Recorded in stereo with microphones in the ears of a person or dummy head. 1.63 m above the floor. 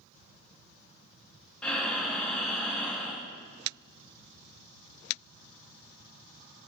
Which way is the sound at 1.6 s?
5° left (ahead or behind).